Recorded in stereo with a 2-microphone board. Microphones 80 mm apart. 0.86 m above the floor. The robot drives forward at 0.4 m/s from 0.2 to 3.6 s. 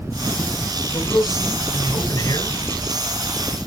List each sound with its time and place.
0.9 s a man speaking: 55° left (ahead or behind), 4 m; by 2.6 s 60° left (ahead or behind), 3.5 m